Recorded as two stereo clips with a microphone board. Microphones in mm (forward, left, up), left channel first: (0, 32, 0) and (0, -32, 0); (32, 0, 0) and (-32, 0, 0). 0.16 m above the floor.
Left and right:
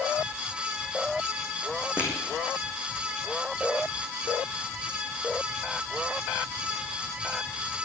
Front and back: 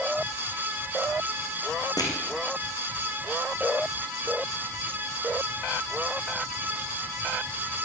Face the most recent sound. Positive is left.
turn(degrees=-15)